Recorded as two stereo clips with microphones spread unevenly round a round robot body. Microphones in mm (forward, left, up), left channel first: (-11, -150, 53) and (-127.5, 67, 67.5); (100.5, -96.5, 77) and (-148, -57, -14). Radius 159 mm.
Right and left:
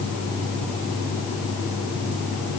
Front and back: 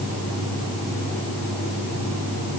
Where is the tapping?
No tapping in this recording.